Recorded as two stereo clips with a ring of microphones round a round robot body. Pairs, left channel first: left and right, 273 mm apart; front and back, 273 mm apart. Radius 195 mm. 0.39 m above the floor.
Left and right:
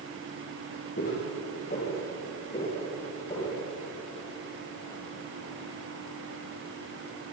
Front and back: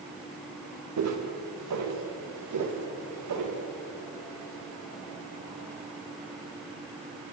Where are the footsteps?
160° left, 6 m; by 3.6 s 170° left, 9.5 m.